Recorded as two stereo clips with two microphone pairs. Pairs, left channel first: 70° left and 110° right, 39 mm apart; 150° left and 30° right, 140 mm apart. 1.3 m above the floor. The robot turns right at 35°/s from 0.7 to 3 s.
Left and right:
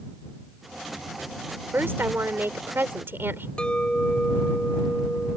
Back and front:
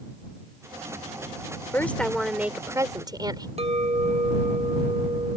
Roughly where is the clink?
Ahead.